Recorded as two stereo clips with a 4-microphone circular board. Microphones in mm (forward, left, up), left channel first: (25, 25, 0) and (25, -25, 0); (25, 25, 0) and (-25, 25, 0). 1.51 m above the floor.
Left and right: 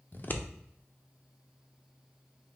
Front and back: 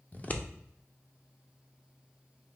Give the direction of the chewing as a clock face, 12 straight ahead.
No chewing in this recording.